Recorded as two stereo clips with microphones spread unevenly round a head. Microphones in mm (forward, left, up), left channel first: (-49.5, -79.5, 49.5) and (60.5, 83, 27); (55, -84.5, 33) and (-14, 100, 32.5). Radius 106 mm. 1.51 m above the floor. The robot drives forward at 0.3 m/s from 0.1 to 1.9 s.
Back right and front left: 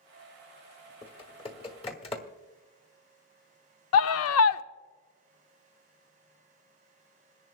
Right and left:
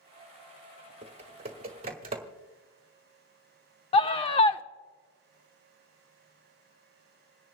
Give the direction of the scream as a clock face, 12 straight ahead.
4 o'clock.